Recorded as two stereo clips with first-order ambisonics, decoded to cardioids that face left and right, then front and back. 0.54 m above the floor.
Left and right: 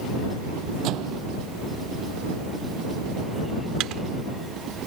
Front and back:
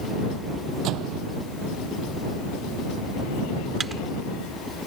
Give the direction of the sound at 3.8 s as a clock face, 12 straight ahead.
4 o'clock.